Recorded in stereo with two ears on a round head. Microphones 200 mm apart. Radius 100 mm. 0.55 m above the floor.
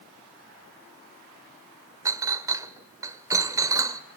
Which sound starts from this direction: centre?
A clink, at 2.0 s.